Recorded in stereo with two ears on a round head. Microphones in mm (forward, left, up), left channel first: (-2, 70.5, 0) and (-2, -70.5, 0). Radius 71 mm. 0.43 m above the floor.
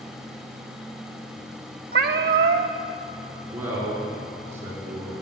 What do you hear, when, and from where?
1.9 s a cat meowing: 60° right (ahead or behind), 0.9 m
3.5 s a man speaking: 15° right (ahead or behind), 5 m